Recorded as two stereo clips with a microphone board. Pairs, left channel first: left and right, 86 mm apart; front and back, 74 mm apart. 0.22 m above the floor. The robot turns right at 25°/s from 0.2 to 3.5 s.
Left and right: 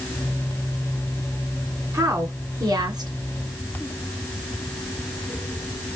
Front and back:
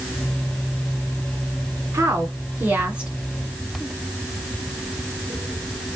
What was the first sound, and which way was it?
A woman speaking, 135° right.